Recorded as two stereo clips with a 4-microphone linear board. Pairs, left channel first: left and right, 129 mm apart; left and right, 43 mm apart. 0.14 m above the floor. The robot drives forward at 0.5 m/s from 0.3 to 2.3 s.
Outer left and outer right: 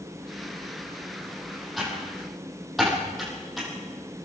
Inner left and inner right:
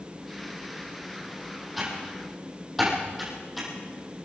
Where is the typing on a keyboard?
Centre (ahead or behind), 6.5 m.